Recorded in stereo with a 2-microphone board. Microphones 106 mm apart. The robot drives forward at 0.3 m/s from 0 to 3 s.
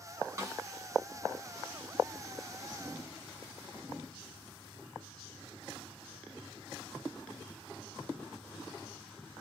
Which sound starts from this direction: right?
A snare drum, at 0.4 s.